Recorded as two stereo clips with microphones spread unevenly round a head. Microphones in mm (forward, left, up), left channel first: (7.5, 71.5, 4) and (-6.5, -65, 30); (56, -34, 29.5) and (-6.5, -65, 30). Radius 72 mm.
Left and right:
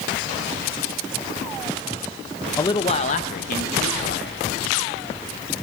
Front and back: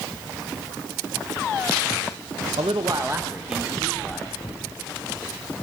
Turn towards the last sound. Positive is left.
turn(degrees=105)